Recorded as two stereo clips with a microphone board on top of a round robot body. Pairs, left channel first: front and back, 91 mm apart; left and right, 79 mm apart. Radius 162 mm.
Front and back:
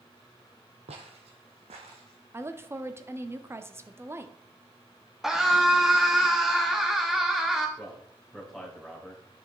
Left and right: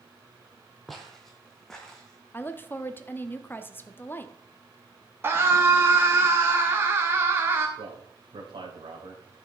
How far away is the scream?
About 1.5 m.